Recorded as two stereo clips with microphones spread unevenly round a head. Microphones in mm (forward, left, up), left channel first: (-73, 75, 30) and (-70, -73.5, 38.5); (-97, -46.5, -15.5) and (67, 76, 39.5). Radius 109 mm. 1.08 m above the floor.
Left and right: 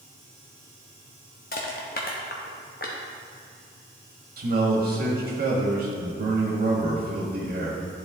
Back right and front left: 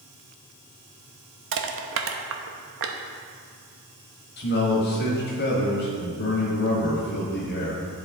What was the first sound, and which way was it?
Crushing, 40° left.